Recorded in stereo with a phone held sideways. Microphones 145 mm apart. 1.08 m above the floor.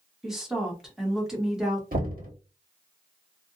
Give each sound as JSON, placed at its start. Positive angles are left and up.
{"t": 0.2, "sound": "a woman speaking", "side_deg": -5, "distance_m": 1.3}
{"t": 1.9, "sound": "knocking", "side_deg": -80, "distance_m": 1.3}